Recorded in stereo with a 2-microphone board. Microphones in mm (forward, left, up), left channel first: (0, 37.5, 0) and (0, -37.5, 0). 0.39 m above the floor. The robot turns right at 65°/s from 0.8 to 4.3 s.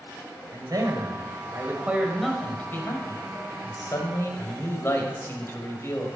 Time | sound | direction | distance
0.5 | a man speaking | 90° right | 1.8 m